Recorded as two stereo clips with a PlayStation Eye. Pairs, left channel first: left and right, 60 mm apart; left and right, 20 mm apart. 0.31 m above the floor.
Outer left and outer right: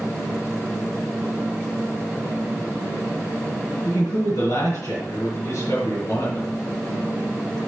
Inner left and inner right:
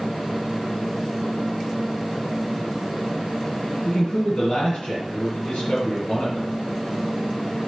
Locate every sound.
3.9 s a man speaking: 60° left (ahead or behind), 3.5 m